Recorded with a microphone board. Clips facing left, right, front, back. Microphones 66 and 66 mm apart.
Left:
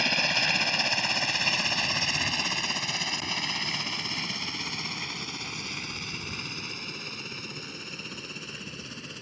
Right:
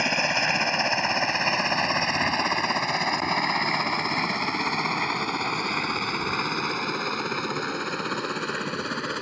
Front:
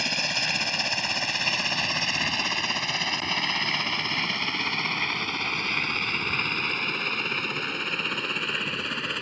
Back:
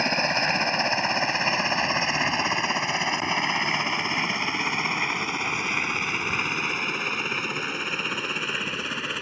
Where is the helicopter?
145° right; by 9.2 s 95° right.